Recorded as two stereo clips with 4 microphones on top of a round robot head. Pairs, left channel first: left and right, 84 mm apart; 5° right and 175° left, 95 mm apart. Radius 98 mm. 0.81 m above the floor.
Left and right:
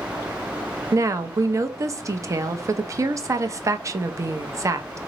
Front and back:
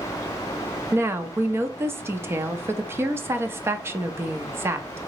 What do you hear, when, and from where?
0.9 s a woman speaking: 130° right, 0.6 m